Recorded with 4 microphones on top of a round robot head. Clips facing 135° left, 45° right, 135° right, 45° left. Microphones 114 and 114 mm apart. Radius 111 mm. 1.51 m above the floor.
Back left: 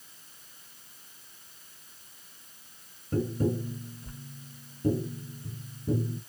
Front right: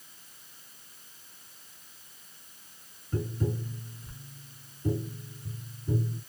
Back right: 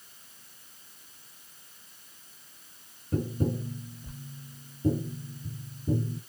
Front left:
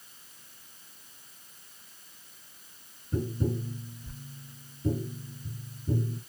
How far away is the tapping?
About 0.8 m.